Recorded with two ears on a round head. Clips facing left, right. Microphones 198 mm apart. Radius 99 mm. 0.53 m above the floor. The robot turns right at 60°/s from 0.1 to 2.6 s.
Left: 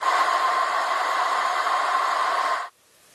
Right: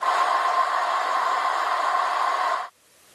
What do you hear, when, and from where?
Only background noise.